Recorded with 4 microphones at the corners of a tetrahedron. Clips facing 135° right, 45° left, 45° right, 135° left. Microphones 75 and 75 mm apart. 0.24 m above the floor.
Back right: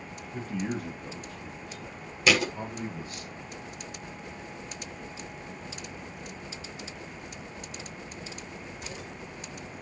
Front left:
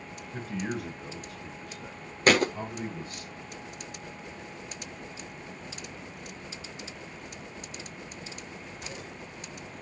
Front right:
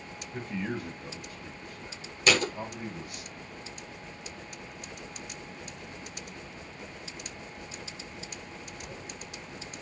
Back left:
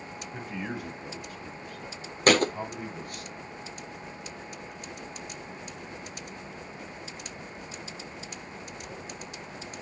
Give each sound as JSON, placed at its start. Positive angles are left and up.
{"t": 0.3, "sound": "a man speaking", "azimuth_deg": 55, "distance_m": 4.0}
{"t": 2.3, "sound": "a thud", "azimuth_deg": 90, "distance_m": 0.7}